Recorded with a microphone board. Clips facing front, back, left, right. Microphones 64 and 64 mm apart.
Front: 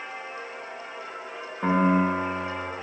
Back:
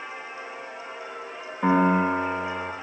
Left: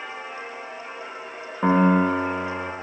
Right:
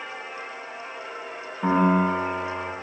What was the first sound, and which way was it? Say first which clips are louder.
A piano: back 1 dB, left 2 dB; 95° left.